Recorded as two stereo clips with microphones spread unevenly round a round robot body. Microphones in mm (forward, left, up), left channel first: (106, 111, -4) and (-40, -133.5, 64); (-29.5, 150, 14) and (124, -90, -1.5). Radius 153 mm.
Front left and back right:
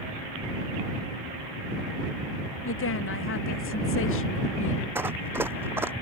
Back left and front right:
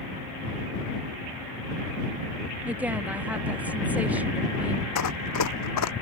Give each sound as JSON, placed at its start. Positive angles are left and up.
{"t": 2.6, "sound": "a woman speaking", "azimuth_deg": 25}
{"t": 5.0, "sound": "running footsteps", "azimuth_deg": 160}